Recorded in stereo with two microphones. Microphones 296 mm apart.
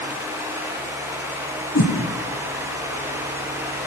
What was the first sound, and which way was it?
A whoosh, 55° left (ahead or behind).